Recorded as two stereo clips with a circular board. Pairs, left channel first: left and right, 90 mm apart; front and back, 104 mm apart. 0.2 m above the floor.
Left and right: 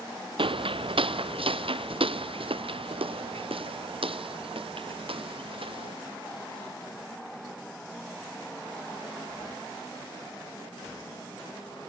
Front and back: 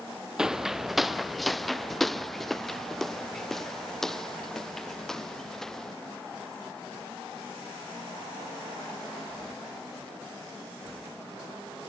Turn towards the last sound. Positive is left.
turn(degrees=-85)